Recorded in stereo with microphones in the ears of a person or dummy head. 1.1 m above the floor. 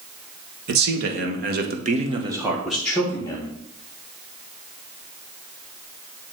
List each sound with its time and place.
0.7 s a man speaking: 55° right (ahead or behind), 1.5 m; by 3.5 s 15° left (ahead or behind), 1.4 m